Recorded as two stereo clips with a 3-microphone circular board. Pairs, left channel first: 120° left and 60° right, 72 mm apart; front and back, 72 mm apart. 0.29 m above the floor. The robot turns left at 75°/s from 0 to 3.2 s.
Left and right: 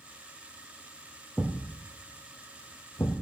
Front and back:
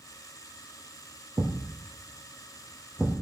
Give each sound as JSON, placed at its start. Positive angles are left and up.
{"t": 1.4, "sound": "a thud", "azimuth_deg": -145, "distance_m": 3.0}